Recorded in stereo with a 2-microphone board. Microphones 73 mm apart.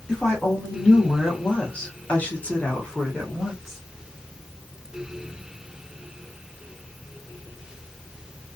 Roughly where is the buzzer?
No buzzer in this recording.